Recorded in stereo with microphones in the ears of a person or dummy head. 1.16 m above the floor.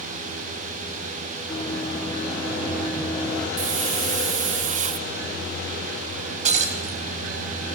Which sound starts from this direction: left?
Running footsteps, at 1.5 s.